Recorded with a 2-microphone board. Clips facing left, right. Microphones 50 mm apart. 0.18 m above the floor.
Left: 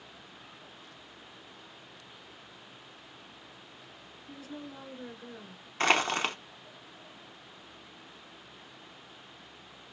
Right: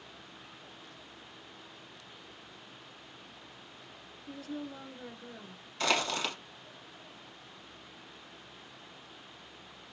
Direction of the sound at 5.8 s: 40° left (ahead or behind).